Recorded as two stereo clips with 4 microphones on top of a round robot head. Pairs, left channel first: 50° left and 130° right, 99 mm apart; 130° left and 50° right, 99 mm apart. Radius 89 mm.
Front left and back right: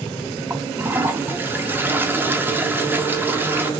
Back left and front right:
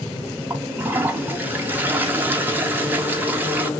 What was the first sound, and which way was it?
A toilet flushing, 95° right.